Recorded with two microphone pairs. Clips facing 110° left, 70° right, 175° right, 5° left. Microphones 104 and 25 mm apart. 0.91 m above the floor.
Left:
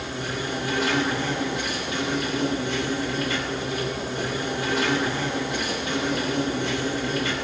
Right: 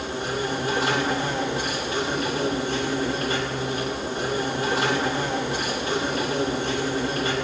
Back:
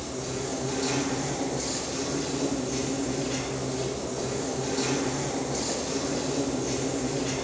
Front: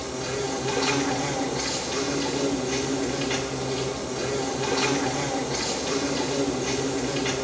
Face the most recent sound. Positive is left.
turn(degrees=-20)